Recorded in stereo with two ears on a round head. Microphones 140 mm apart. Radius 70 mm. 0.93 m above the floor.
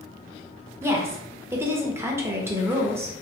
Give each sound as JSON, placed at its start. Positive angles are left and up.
{"t": 0.8, "sound": "a woman speaking", "side_deg": -15, "distance_m": 0.7}